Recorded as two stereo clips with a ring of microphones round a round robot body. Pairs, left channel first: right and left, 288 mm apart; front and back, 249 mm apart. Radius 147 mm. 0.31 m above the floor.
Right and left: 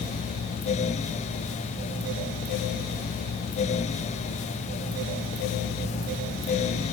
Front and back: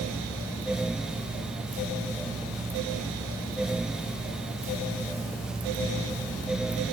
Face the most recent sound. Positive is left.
No sound to turn to.